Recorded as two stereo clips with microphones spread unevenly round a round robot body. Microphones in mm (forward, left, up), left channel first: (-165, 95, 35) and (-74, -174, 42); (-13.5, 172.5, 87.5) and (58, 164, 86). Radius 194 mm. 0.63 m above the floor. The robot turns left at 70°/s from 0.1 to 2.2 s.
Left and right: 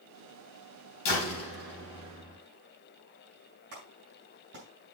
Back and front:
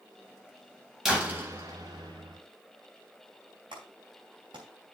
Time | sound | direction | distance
1.1 | a door slam | 80° left | 4 m
3.7 | a clap | 5° right | 4 m